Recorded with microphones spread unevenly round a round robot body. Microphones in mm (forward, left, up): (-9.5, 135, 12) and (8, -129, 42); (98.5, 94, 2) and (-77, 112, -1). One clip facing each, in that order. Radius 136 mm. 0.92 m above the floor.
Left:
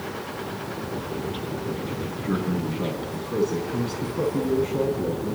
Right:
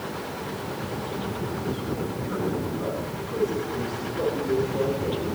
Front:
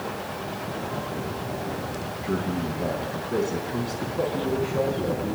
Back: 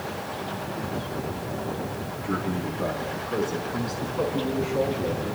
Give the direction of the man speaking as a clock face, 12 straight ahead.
10 o'clock.